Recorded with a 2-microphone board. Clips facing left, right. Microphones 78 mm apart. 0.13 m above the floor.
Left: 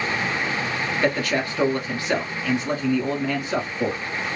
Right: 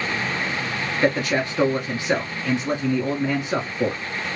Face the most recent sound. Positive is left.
turn(degrees=-20)  # may be behind; listen again after turning